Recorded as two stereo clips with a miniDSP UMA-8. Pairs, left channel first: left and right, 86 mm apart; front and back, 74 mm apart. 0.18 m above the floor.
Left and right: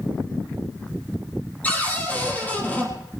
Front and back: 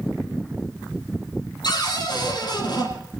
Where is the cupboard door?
15° left, 4 m.